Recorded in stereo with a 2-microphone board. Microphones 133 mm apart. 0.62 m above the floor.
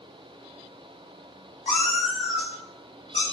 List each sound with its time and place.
1.7 s a cat meowing: 65° left (ahead or behind), 0.9 m; by 3.2 s 70° left (ahead or behind), 1.9 m